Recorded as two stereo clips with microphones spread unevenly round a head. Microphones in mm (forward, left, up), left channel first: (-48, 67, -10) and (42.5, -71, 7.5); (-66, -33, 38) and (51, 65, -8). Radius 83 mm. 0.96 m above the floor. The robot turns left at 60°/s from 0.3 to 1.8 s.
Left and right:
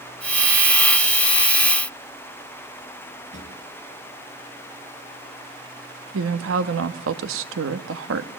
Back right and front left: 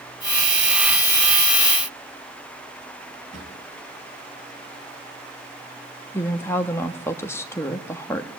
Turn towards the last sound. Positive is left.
turn(degrees=-60)